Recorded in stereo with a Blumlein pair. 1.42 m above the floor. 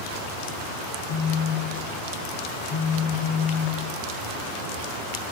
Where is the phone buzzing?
35° left, 0.7 m.